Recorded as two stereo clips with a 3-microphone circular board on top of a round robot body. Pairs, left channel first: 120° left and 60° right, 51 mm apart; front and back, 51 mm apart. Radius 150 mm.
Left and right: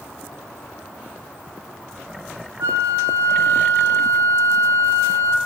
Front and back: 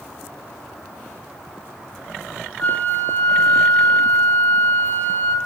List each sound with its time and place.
2.6 s a flute: 65° right, 1.6 m